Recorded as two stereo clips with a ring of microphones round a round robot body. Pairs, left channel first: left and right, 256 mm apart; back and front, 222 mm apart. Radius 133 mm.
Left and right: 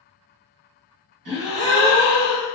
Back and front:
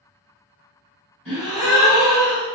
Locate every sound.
1.2 s a gasp: 95° right, 1.0 m